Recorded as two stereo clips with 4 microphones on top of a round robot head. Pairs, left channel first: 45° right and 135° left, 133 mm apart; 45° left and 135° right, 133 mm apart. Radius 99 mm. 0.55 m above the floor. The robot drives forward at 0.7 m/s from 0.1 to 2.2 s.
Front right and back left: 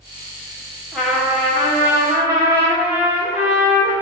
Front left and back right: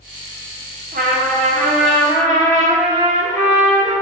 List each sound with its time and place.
0.9 s a trumpet: 140° right, 1.9 m; by 3.9 s 155° right, 2.5 m